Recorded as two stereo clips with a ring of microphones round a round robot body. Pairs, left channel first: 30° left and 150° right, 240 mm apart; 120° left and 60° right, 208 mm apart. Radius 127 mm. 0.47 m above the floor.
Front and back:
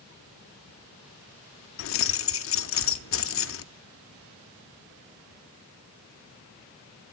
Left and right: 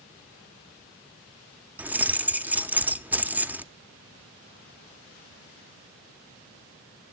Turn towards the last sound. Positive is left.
turn(degrees=20)